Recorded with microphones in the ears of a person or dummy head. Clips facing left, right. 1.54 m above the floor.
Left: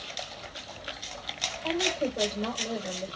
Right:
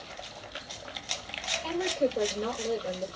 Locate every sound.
1.6 s a woman speaking: 60° right (ahead or behind), 5 m